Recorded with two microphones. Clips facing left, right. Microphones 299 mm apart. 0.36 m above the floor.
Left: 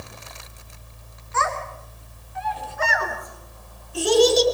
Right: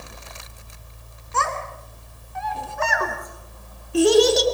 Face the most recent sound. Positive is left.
turn(degrees=-75)  # may be behind; listen again after turning